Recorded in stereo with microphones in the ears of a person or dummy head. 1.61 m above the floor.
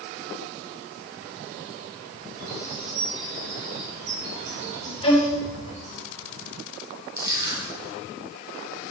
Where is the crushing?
20° right (ahead or behind), 3 m.